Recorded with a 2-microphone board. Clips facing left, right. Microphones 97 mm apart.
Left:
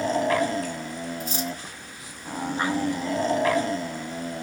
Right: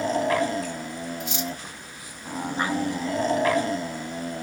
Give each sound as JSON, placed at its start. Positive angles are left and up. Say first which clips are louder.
{"t": 1.2, "sound": "cutlery clinking", "louder": "left 1 dB", "side_deg": 40, "distance_m": 1.5}